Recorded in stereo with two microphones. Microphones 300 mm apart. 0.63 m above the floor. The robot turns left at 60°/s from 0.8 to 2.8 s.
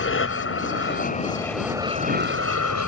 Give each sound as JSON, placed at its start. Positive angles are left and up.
{"t": 0.0, "sound": "an aircraft", "azimuth_deg": 50}